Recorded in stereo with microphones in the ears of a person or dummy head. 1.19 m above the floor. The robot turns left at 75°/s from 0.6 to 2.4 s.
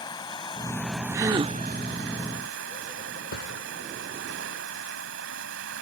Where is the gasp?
25° right; by 1.6 s 60° right.